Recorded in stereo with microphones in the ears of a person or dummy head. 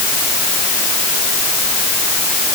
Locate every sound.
Only background noise.